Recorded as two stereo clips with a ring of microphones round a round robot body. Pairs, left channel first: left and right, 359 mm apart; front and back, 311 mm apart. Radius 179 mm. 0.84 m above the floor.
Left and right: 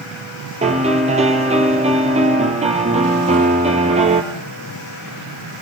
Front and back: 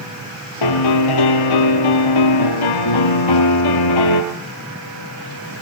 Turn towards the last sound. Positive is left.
turn(degrees=-15)